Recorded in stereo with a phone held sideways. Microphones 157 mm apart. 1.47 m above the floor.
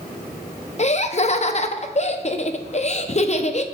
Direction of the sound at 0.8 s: 45° left (ahead or behind).